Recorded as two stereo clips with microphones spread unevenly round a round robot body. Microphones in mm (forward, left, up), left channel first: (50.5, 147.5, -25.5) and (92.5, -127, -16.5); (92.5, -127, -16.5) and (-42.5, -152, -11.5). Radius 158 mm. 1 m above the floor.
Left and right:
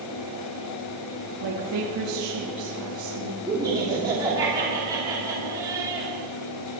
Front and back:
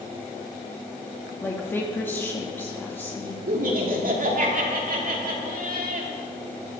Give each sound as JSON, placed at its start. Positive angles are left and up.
{"t": 1.4, "sound": "a woman speaking", "azimuth_deg": -65, "distance_m": 1.6}
{"t": 3.5, "sound": "laughter", "azimuth_deg": -160, "distance_m": 3.0}